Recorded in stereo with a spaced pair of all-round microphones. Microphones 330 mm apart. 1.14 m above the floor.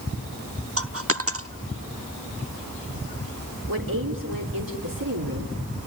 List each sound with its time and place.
0.8 s a dropped coin: 45° right (ahead or behind), 0.9 m
3.7 s a woman speaking: 85° right, 3.5 m